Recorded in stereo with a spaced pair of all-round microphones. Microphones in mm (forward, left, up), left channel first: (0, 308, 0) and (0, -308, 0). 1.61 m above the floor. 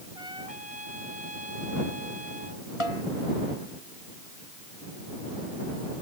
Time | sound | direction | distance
0.1 | a trumpet | 60° right (ahead or behind) | ?
2.8 | a snare drum | 55° left (ahead or behind) | ?